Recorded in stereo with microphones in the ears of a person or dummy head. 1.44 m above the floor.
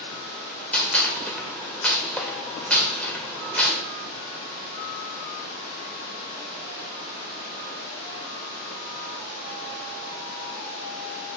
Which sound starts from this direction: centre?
A gunshot, at 0.7 s.